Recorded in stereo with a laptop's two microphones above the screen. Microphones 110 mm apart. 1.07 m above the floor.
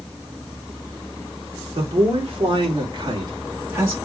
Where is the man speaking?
55° right (ahead or behind), 2.5 m; by 4.0 s 20° right (ahead or behind), 1.9 m.